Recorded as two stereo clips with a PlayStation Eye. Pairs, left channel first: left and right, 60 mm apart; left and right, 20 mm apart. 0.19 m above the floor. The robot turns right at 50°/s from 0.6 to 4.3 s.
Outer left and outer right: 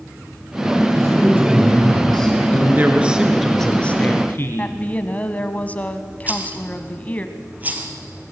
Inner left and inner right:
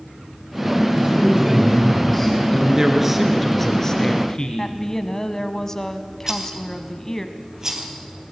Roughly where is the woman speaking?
Left.